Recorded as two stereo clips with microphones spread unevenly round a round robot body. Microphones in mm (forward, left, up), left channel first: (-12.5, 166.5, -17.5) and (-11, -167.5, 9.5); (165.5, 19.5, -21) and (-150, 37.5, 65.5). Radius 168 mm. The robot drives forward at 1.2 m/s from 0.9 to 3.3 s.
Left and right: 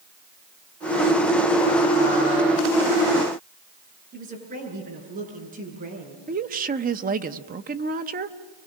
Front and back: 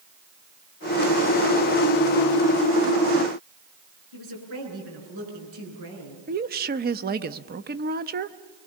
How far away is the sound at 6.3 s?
About 0.8 m.